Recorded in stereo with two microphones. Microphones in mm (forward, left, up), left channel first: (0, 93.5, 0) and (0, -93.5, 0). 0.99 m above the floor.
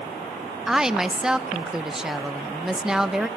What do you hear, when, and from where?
0.7 s a woman speaking: 5° right (ahead or behind), 0.6 m